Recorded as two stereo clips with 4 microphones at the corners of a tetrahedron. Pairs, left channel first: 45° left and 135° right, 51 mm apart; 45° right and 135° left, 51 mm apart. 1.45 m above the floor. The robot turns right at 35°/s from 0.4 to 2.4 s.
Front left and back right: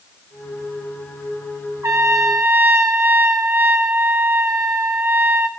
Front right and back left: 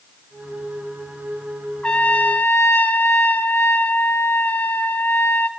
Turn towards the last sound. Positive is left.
turn(degrees=-95)